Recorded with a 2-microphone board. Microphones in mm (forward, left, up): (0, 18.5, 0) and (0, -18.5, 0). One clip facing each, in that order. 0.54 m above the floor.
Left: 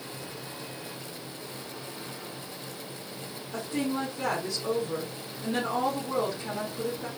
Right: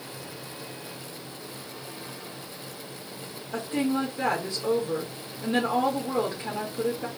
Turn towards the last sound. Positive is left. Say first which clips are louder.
# right 4 dB
turn(degrees=-40)  # may be behind; listen again after turning